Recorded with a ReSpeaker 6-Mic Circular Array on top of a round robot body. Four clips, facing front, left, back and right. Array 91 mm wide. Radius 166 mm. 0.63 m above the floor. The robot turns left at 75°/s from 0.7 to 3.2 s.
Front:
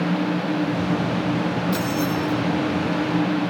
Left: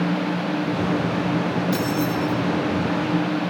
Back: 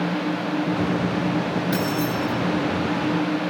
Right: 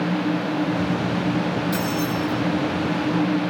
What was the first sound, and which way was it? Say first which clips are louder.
Keys jangling: left 1 dB, even; 175° left.